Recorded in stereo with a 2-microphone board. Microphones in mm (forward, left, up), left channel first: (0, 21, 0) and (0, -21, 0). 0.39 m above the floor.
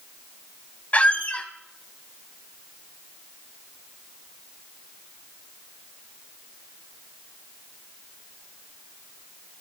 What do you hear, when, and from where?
0.9 s a squeak: 30° left (ahead or behind), 1.3 m